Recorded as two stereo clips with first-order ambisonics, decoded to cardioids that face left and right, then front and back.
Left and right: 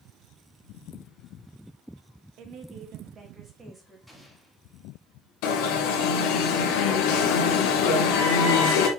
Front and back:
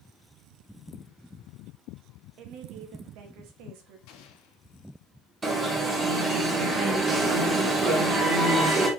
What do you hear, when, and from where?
2.4 s a woman speaking: 135° right, 1.4 m; by 4.0 s 170° right, 2 m
4.1 s an explosion: straight ahead, 1.8 m
5.4 s an alarm: 105° left, 2.0 m